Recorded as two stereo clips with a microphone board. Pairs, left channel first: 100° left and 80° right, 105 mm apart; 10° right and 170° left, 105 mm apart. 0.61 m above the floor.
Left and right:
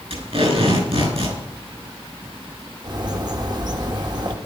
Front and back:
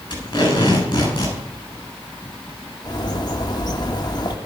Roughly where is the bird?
Ahead right.